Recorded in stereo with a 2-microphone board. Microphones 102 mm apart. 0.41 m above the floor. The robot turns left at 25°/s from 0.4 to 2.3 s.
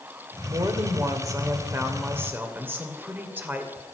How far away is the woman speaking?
About 1.6 m.